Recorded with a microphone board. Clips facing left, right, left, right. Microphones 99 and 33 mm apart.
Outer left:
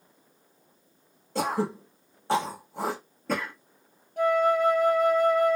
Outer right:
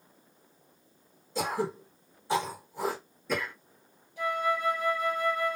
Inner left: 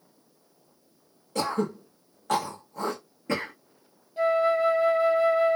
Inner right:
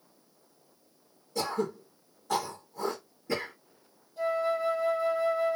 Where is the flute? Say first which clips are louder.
Outer left 7 dB, inner left 6 dB; 55° left (ahead or behind), 1.5 m.